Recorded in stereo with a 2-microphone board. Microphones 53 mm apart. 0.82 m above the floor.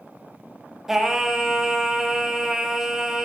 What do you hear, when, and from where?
0.9 s singing: 5° right (ahead or behind), 0.6 m